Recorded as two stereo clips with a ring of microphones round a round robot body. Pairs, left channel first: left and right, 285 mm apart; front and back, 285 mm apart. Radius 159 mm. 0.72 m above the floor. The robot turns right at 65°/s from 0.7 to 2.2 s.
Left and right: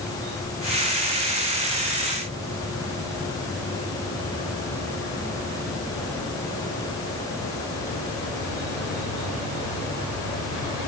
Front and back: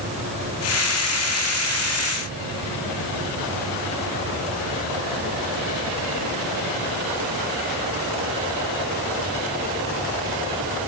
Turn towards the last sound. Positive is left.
No sound to turn to.